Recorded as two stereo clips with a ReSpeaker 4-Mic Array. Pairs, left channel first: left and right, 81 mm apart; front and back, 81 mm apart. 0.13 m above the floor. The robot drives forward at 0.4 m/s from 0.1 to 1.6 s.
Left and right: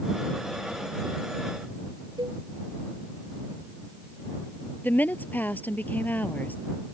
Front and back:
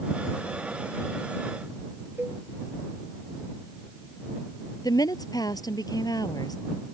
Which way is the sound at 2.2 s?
115° right.